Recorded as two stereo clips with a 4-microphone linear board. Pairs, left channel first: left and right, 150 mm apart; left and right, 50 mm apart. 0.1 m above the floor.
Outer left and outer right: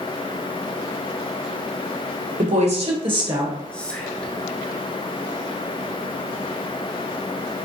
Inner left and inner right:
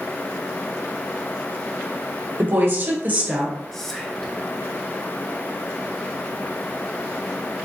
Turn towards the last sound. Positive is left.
turn(degrees=5)  # may be behind; listen again after turning